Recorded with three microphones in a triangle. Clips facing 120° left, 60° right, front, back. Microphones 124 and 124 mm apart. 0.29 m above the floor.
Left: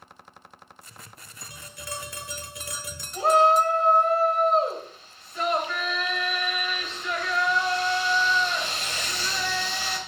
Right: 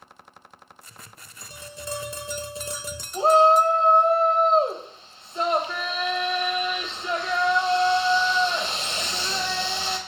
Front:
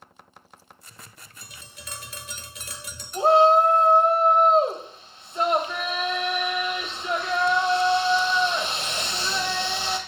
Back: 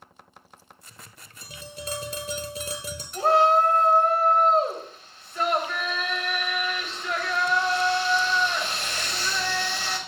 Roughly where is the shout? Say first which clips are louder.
Right 3 dB, front 3 dB; ahead right.